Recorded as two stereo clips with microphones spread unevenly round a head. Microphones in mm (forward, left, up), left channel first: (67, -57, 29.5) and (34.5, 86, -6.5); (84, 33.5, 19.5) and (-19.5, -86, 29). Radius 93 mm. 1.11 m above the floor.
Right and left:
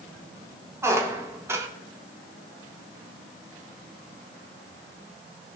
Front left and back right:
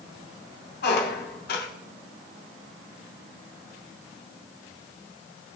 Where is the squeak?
25° left, 1.6 m.